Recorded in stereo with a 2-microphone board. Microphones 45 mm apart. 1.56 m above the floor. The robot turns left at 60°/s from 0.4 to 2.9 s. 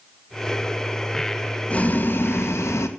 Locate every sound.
1.7 s boiling: 155° left, 1.7 m; by 2.9 s 85° left, 1.7 m